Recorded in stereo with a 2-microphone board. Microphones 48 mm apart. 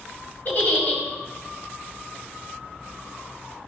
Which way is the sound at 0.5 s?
45° left (ahead or behind).